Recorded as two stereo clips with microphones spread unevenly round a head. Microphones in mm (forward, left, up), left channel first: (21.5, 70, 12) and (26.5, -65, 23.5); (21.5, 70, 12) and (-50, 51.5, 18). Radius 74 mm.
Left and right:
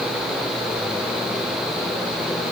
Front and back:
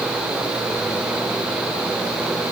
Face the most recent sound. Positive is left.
No sound to turn to.